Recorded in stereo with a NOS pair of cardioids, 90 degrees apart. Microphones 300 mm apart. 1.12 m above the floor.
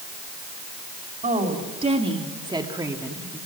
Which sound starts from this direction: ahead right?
A woman speaking, at 1.2 s.